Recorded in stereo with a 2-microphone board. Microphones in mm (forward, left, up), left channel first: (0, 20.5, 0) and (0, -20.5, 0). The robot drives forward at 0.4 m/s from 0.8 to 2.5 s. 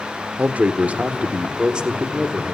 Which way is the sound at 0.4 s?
35° right (ahead or behind).